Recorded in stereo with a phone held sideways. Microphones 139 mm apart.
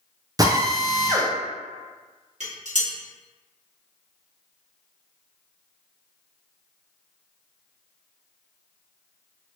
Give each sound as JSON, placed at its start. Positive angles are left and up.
{"t": 0.4, "sound": "a drill", "side_deg": -25, "distance_m": 0.6}
{"t": 2.4, "sound": "dishes clattering", "side_deg": -60, "distance_m": 1.4}